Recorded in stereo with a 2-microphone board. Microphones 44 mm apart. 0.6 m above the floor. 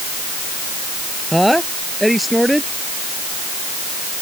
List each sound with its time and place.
1.3 s a woman speaking: centre (ahead or behind)